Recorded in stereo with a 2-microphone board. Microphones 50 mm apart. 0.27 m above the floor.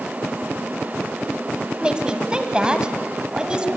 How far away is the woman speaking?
About 1.9 m.